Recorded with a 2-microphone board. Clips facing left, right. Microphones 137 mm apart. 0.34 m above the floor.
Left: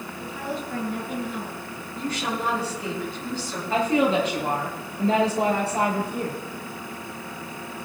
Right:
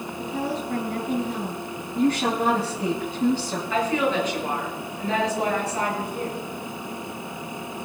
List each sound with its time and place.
0.2 s a woman speaking: 75° right (ahead or behind), 5 m
1.9 s a woman speaking: 55° right (ahead or behind), 3.5 m
3.7 s a woman speaking: 35° left (ahead or behind), 7 m